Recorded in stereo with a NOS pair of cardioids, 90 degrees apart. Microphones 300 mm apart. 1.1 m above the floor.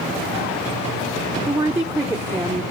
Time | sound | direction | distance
1.5 | a woman speaking | 5° right | 0.5 m